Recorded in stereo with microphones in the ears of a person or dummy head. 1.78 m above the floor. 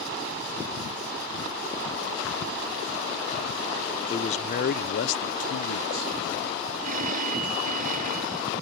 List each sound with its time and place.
4.1 s a man speaking: 30° left (ahead or behind); by 6.2 s 80° left
6.8 s a phone ringing: 45° right (ahead or behind)